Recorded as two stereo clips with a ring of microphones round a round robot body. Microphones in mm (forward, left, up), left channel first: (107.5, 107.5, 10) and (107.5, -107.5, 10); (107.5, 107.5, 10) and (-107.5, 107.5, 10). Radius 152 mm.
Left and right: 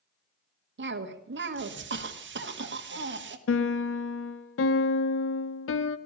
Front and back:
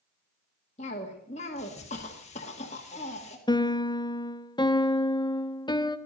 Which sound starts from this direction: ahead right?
A cough, at 0.8 s.